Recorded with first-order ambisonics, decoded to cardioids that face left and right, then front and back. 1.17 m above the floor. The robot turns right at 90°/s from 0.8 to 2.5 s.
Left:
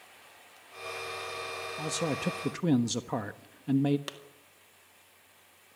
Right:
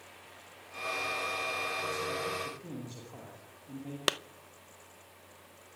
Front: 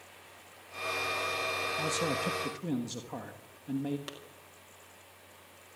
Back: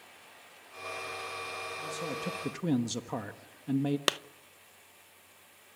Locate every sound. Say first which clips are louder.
1.8 s a man speaking: left 1 dB, front 5 dB; 40° left, 1.3 m; by 4.0 s 105° left, 1.3 m
4.1 s a clap: right 11 dB, back 15 dB; 140° right, 0.6 m